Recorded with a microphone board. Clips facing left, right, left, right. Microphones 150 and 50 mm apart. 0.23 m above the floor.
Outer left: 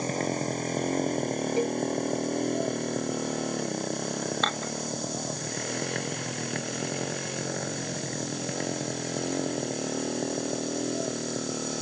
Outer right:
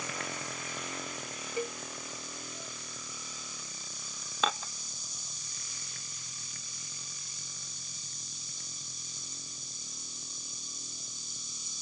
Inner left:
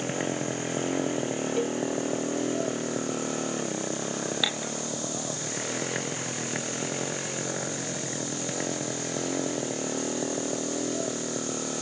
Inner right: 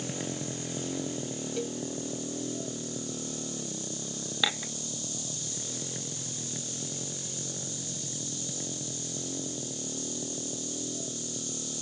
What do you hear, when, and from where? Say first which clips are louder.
0.0 s a motorcycle: outer left 12 dB, inner left 6 dB; 40° left (ahead or behind); by 11.8 s 85° left
1.6 s a cowbell: outer left 7 dB, inner left 6 dB; 30° left (ahead or behind)
4.4 s dishes clattering: outer left 3 dB, inner left 1 dB; 5° right (ahead or behind)